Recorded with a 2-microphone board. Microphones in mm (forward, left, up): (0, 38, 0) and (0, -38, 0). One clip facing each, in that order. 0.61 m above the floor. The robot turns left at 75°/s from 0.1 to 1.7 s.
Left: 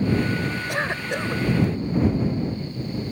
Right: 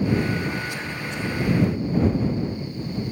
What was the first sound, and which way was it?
A cough, 110° left.